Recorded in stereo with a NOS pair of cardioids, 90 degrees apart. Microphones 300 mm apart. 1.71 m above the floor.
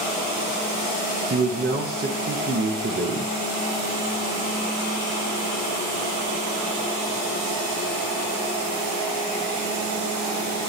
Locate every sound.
1.3 s a man speaking: 30° right, 0.9 m